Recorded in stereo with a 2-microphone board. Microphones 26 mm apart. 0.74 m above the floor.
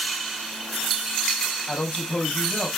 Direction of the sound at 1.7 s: 75° left (ahead or behind).